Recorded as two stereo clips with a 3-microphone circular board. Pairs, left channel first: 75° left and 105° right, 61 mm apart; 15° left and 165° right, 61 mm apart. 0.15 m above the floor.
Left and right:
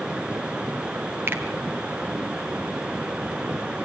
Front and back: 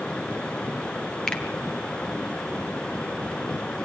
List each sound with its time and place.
1.3 s a finger snap: 60° right, 2 m